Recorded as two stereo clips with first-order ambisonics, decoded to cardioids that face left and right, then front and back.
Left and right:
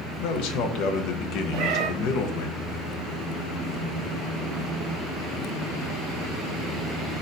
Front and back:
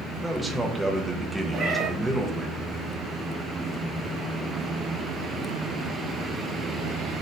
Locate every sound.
0.2 s a man speaking: 95° left, 0.6 m
1.5 s a cat meowing: 115° right, 0.8 m